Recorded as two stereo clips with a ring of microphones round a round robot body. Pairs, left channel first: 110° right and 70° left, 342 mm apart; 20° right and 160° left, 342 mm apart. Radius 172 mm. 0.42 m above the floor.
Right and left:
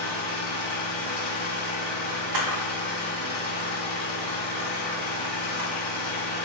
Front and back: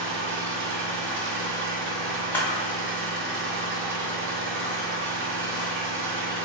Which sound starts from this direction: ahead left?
A camera shutter, at 2.3 s.